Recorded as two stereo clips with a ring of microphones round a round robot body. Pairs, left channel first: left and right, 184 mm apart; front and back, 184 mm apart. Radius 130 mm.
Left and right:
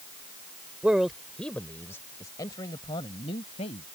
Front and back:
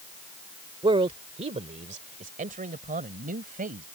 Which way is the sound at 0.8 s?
165° right.